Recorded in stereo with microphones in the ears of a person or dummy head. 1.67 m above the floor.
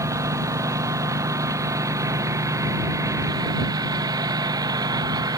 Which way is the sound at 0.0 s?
20° right (ahead or behind).